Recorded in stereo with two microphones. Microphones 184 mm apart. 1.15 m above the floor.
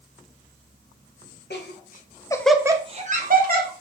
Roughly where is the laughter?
Left.